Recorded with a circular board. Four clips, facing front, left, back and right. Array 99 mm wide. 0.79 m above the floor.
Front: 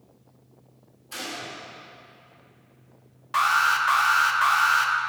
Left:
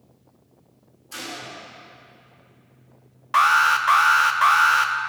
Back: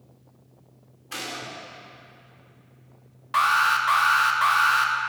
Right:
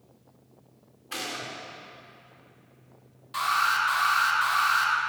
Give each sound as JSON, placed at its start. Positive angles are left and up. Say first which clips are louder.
{"t": 1.1, "sound": "a gunshot", "louder": "even, back 1 dB", "azimuth_deg": -125, "distance_m": 2.0}
{"t": 3.3, "sound": "an alarm", "louder": "left 8 dB, back 1 dB", "azimuth_deg": 95, "distance_m": 0.6}